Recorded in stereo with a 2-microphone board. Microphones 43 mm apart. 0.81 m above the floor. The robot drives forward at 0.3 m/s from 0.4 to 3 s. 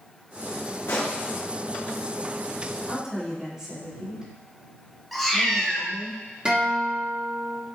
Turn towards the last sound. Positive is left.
turn(degrees=-25)  # may be behind; listen again after turning